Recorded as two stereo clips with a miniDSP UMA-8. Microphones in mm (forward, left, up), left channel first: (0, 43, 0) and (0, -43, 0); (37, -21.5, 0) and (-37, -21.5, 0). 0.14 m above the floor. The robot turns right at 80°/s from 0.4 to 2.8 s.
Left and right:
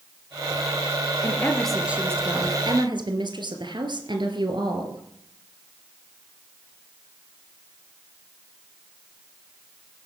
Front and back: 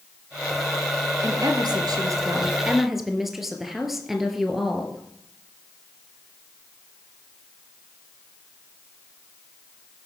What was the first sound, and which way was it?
A woman speaking, 140° left.